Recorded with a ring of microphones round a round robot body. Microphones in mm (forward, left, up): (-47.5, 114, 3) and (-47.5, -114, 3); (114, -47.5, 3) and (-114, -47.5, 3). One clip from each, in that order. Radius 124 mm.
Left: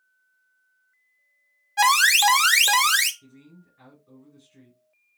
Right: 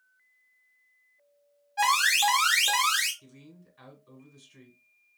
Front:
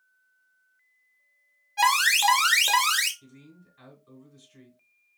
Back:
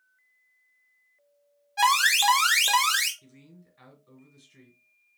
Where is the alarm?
95° left, 0.7 m.